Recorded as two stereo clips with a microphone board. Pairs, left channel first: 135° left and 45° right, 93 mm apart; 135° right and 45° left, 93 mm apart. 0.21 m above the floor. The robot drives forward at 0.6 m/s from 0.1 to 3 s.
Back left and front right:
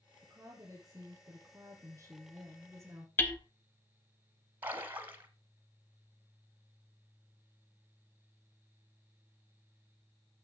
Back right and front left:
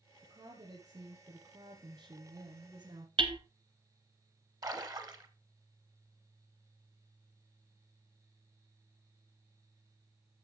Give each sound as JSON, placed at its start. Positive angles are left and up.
{"t": 0.2, "sound": "a woman speaking", "azimuth_deg": 5, "distance_m": 4.0}
{"t": 3.2, "sound": "hammering", "azimuth_deg": 70, "distance_m": 0.9}
{"t": 4.6, "sound": "a splash", "azimuth_deg": 15, "distance_m": 1.1}